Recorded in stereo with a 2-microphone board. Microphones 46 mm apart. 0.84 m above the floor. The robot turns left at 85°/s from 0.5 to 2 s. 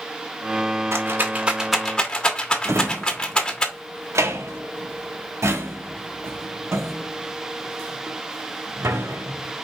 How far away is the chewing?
I don't hear chewing.